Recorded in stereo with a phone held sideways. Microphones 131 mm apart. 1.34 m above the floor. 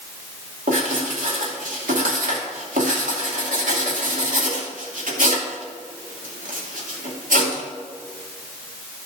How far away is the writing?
About 2.5 m.